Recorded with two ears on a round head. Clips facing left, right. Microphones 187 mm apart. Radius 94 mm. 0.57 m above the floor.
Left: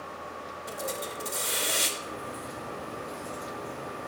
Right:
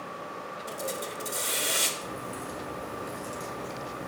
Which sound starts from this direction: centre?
A hiss, at 0.7 s.